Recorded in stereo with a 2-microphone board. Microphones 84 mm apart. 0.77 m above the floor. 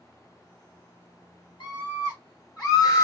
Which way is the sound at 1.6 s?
65° left (ahead or behind).